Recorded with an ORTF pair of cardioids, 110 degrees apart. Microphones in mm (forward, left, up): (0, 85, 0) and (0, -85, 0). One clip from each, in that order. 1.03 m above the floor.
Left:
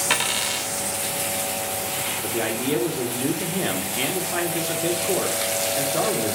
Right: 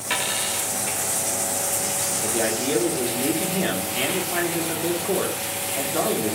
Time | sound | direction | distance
0.1 | a dropped coin | 35° left | 1.7 m
2.2 | a man speaking | 5° left | 2 m